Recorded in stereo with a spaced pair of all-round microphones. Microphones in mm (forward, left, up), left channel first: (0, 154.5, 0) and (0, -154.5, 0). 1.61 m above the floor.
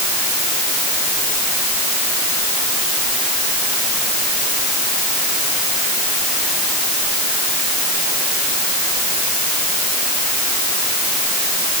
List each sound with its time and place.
Only background noise.